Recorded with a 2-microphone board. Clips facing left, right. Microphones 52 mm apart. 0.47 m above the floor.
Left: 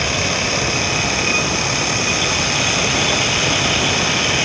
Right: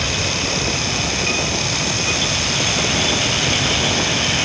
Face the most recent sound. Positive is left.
No sound to turn to.